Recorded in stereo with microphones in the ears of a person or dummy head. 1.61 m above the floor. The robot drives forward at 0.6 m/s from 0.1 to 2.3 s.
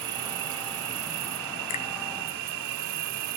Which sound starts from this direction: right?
An insect, at 0.0 s.